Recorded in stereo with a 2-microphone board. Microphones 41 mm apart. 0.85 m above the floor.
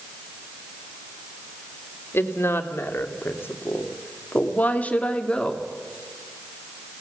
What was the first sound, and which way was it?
A woman speaking, 75° left (ahead or behind).